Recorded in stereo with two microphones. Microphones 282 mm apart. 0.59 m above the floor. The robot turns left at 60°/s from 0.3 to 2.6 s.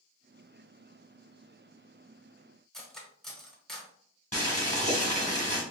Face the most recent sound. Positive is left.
turn(degrees=25)  # may be behind; listen again after turning